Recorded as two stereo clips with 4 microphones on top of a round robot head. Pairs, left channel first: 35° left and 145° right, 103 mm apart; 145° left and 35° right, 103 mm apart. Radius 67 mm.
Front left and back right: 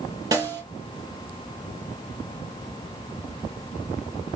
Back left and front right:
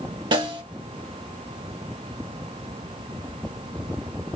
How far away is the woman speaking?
No woman speaking in this recording.